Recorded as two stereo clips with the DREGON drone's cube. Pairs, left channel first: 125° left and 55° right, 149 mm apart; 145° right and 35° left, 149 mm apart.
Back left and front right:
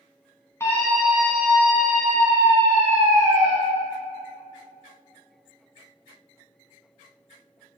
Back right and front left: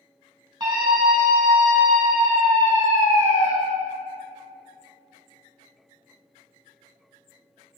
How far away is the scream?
About 1.2 m.